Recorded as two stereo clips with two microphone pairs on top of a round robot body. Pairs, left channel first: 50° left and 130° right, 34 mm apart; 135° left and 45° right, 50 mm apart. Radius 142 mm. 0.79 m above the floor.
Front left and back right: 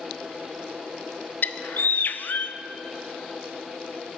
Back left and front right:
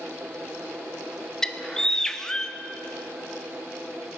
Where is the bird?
60° left, 0.7 m.